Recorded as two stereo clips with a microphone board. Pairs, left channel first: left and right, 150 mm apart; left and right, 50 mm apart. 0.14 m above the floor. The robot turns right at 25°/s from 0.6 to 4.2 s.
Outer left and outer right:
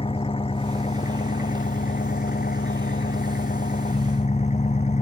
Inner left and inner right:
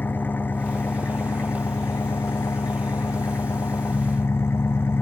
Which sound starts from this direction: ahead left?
An engine running, at 0.0 s.